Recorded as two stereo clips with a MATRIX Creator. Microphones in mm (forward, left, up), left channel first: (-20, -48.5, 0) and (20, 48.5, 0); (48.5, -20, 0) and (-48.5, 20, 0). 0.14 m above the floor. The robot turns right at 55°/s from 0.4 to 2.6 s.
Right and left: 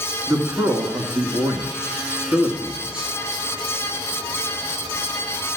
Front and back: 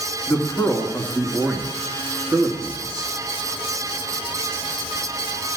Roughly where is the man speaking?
Ahead.